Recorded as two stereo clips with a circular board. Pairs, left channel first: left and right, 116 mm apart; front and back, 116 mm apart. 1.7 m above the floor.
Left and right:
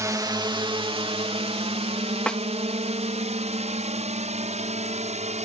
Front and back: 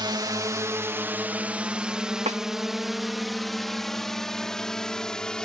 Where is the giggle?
I don't hear a giggle.